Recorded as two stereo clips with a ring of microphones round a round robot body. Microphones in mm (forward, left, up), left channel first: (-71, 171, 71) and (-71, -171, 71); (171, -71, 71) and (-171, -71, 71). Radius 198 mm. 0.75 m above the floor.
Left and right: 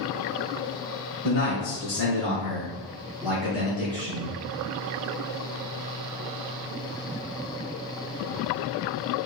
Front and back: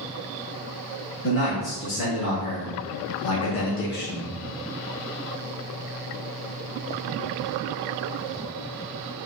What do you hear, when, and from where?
1.2 s a man speaking: 45° left, 1.4 m; by 4.3 s 65° right, 0.8 m